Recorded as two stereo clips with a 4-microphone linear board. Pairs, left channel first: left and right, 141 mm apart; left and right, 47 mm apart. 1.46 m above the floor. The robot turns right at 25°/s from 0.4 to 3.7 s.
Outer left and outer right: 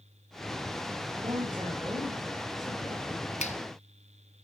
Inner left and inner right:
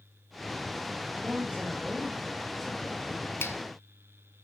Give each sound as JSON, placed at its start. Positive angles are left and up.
{"t": 1.2, "sound": "a man speaking", "azimuth_deg": -35, "distance_m": 3.0}
{"t": 3.4, "sound": "a finger snap", "side_deg": 55, "distance_m": 0.7}